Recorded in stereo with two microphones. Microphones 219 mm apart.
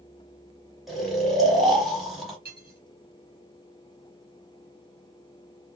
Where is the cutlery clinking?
50° right (ahead or behind), 1.3 m.